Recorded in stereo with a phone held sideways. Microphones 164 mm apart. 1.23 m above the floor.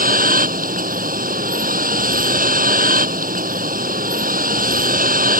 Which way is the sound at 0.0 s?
60° right (ahead or behind).